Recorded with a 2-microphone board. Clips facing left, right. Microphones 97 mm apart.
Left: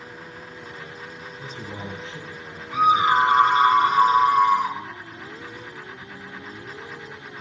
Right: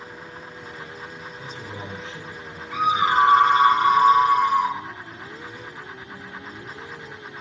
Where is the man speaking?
35° left (ahead or behind), 1.3 m; by 3.4 s 20° left (ahead or behind), 3 m.